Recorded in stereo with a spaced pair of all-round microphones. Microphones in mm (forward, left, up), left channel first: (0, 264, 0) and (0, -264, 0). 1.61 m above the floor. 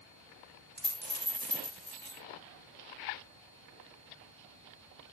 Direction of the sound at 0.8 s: 20° right (ahead or behind).